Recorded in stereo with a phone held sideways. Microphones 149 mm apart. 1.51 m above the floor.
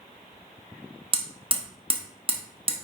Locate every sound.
1.1 s hammering: 35° right (ahead or behind), 1.1 m